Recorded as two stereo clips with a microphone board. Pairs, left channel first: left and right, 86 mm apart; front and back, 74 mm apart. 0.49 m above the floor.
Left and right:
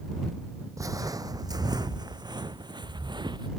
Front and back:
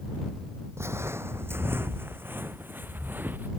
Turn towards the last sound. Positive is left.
turn(degrees=-115)